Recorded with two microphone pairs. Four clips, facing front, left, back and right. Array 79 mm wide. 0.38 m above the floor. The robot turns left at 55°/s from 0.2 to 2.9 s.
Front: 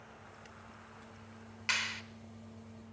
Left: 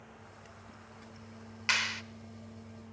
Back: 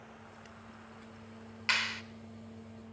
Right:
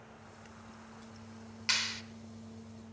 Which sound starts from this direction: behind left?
A clap, at 1.7 s.